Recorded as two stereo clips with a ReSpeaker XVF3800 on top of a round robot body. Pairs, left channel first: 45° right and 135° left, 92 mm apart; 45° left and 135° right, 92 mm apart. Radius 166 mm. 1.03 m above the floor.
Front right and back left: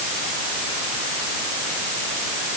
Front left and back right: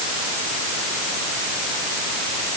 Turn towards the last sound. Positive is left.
No sound to turn to.